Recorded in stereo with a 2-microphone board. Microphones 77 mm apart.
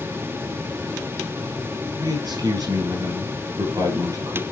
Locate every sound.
2.0 s a man speaking: 55° right (ahead or behind), 6 m